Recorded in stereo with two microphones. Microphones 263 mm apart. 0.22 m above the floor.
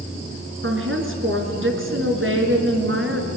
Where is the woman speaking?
50° right (ahead or behind), 3.5 m.